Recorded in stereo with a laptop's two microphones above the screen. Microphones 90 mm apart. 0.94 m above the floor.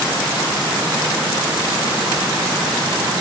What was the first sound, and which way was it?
Only background noise.